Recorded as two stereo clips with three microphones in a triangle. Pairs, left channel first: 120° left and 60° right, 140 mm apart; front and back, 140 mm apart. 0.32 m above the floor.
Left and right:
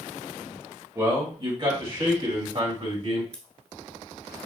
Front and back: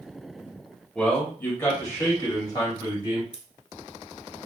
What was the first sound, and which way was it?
A man speaking, 75° right.